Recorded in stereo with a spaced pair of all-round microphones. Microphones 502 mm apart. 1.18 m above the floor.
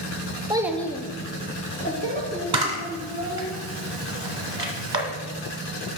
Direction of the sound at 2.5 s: 45° right (ahead or behind).